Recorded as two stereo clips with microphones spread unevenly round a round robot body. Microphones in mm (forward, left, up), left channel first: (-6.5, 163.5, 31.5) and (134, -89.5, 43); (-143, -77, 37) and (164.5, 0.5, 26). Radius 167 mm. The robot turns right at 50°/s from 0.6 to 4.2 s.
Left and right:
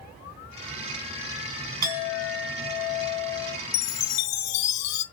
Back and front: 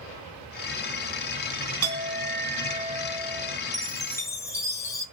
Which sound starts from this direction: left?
A chime, at 3.7 s.